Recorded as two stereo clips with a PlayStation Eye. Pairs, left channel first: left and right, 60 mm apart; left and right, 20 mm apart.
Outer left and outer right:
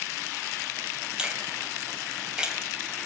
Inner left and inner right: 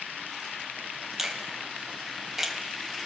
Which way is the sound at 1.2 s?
15° right (ahead or behind).